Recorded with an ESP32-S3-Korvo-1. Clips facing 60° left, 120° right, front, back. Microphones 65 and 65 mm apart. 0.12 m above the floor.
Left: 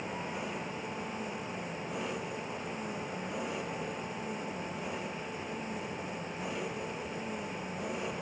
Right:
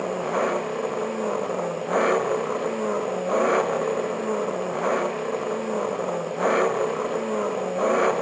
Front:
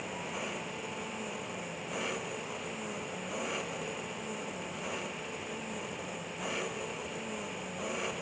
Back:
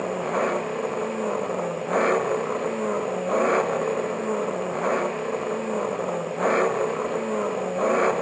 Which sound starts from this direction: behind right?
An engine running, at 0.0 s.